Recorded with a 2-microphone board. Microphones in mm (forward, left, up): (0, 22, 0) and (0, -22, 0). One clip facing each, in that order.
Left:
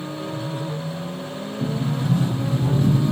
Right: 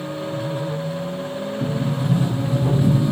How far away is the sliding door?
About 0.6 m.